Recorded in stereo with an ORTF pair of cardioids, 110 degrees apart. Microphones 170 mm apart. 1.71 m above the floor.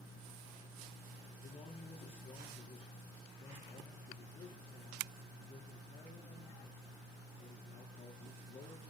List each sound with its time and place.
1.4 s a man speaking: 35° left, 5 m